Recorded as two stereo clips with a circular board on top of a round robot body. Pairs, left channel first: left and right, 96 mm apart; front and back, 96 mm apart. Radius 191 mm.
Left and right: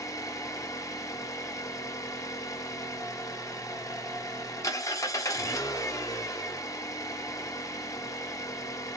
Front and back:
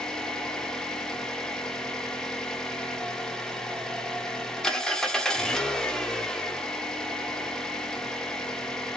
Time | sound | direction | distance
0.0 | an engine running | 80° left | 0.9 m